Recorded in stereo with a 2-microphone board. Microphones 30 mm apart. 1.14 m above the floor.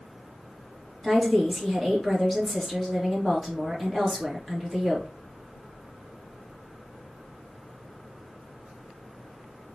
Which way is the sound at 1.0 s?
5° left (ahead or behind).